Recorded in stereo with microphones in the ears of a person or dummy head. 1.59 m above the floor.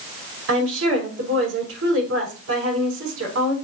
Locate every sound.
0.5 s a woman speaking: 80° right, 5 m